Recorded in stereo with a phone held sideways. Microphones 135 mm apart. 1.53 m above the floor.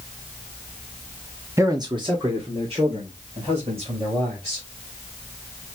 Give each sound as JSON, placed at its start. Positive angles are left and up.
{"t": 1.6, "sound": "a man speaking", "side_deg": -20, "distance_m": 0.7}